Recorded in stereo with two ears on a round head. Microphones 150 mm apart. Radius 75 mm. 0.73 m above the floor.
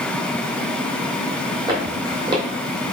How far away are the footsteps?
About 1.3 m.